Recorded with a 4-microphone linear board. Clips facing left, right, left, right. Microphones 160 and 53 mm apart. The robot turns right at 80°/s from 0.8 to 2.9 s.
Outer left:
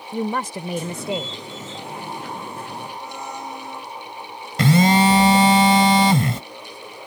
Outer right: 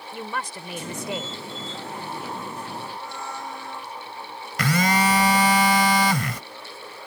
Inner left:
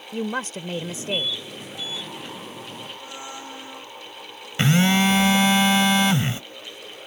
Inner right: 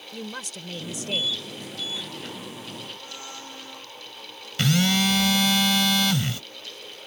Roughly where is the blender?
Centre.